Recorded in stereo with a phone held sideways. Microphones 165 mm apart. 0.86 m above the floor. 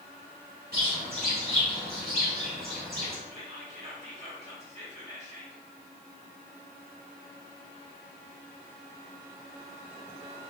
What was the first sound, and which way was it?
A bird, 60° right (ahead or behind).